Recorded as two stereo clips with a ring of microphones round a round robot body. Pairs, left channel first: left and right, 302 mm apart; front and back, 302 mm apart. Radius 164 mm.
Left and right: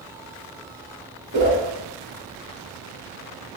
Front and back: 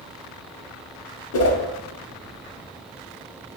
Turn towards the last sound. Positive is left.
turn(degrees=-40)